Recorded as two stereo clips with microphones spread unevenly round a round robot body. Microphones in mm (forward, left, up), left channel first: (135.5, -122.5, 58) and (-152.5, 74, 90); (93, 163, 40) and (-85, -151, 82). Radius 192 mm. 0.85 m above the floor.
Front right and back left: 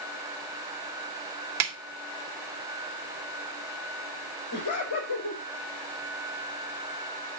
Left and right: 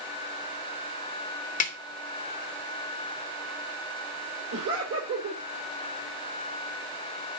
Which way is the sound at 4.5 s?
70° right.